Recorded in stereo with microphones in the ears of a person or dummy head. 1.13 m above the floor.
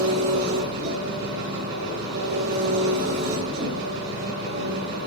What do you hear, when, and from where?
0.0 s an engine running: 60° right (ahead or behind), 9 m